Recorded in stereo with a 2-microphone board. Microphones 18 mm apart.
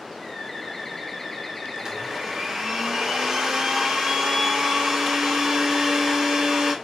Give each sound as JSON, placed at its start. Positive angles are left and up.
{"t": 0.2, "sound": "a bird", "side_deg": 20, "distance_m": 2.5}
{"t": 1.8, "sound": "a blender", "side_deg": -30, "distance_m": 1.7}